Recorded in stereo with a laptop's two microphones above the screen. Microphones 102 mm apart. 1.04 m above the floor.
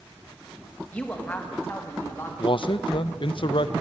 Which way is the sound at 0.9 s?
15° left (ahead or behind).